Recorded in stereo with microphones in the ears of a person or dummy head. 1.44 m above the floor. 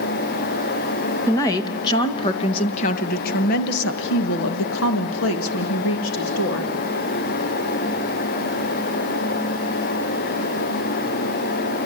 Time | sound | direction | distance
1.3 | a woman speaking | 15° left (ahead or behind) | 2.5 m